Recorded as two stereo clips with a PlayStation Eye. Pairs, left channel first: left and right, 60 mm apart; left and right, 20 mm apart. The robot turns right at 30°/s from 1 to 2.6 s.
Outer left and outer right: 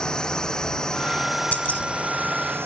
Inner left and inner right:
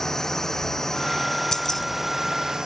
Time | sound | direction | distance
0.0 | a drone | 15° left (ahead or behind) | ?
1.5 | keys jangling | 25° left (ahead or behind) | ?